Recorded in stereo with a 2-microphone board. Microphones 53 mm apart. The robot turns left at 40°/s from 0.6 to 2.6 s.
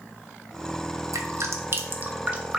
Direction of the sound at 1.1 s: 70° right (ahead or behind).